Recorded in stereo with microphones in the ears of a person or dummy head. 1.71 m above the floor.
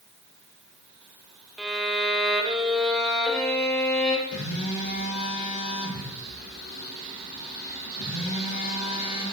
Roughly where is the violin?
Centre.